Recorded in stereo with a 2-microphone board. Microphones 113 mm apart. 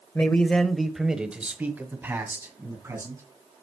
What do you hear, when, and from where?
0.1 s a man speaking: 20° left (ahead or behind), 1.0 m; by 3.2 s 25° right (ahead or behind), 2.5 m